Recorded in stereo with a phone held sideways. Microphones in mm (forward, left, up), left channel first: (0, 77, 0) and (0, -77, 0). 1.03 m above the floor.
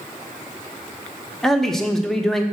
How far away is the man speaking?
About 0.8 m.